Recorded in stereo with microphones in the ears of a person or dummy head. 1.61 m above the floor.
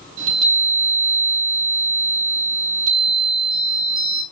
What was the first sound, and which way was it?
A chime, 70° right (ahead or behind).